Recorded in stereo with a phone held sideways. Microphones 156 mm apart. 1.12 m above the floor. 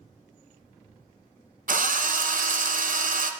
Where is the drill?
65° right (ahead or behind), 0.6 m.